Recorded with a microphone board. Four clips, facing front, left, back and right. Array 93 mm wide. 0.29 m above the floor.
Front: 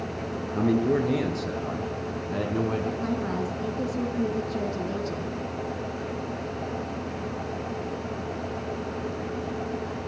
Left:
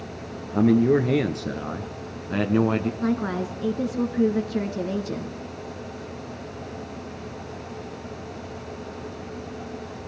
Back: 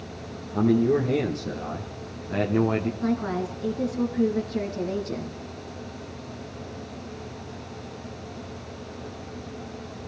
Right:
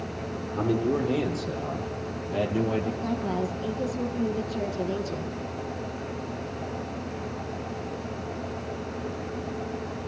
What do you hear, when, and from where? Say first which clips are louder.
0.5 s a man speaking: left 7 dB, back 3 dB; 80° left, 5.5 m; by 2.9 s 105° left, 3 m
3.0 s a woman speaking: left 3 dB, back 2 dB; 95° left, 3.5 m